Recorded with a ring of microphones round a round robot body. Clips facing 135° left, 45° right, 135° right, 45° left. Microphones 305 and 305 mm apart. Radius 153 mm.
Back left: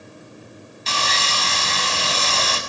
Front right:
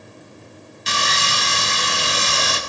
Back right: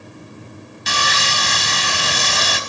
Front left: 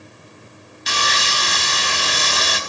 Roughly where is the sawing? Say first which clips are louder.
Front right 1 dB, back right 1 dB; behind right.